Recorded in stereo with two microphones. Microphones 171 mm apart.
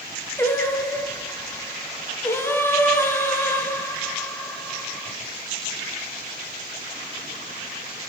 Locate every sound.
0.4 s singing: 15° left (ahead or behind), 1.0 m